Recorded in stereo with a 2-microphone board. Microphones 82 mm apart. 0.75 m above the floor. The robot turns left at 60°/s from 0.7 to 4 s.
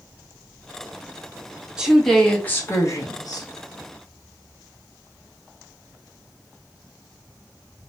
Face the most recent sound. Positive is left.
turn(degrees=60)